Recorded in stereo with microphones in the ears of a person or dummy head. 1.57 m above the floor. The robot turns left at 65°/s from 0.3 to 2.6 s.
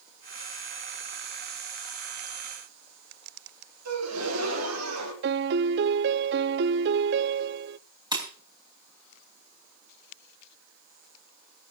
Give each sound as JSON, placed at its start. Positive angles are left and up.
{"t": 3.9, "sound": "a gasp", "side_deg": -90, "distance_m": 4.5}
{"t": 5.2, "sound": "a piano", "side_deg": -60, "distance_m": 0.5}
{"t": 8.1, "sound": "breaking glass", "side_deg": -20, "distance_m": 4.0}